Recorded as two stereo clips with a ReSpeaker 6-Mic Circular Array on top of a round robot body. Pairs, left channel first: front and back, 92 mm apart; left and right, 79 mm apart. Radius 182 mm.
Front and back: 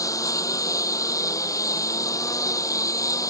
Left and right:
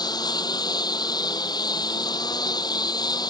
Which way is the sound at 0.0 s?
55° left.